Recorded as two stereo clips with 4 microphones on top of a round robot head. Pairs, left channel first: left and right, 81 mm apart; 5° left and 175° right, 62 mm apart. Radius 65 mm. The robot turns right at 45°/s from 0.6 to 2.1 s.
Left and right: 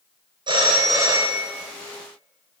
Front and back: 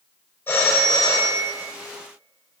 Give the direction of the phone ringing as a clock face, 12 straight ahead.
2 o'clock.